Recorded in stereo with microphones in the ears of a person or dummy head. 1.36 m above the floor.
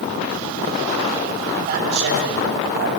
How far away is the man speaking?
About 3.5 m.